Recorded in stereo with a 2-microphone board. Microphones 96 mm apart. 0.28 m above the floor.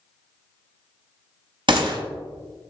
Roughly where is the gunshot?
Right.